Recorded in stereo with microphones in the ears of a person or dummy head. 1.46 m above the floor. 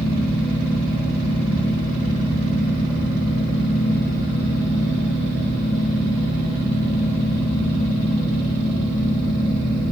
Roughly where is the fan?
Centre.